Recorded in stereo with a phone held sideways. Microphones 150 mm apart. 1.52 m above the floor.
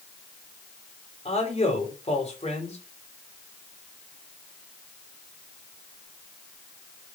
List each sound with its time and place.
1.2 s a man speaking: 45° left (ahead or behind), 4.5 m